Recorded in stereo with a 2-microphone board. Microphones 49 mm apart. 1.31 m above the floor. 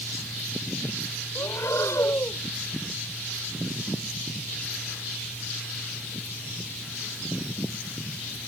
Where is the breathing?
90° left.